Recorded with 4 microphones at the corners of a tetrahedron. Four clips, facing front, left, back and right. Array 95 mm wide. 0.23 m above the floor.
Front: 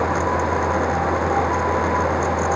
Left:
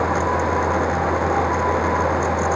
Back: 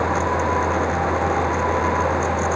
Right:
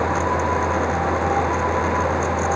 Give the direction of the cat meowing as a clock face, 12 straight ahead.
I don't hear a cat meowing.